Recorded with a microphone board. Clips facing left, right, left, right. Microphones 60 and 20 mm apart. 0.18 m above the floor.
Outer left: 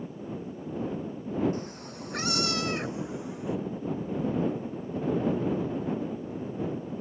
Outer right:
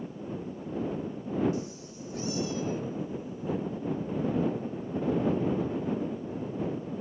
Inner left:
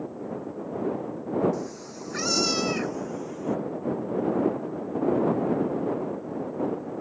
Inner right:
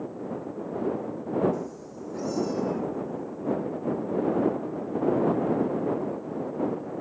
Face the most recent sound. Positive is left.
turn(degrees=75)  # may be behind; listen again after turning